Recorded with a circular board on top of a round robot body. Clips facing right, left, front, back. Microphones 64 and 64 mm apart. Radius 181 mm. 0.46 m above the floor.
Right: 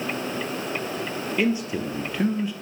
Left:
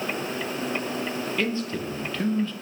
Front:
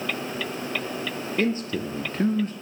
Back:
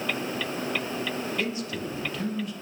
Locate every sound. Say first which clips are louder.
1.4 s a man speaking: right 6 dB, front 5 dB; 20° right, 0.8 m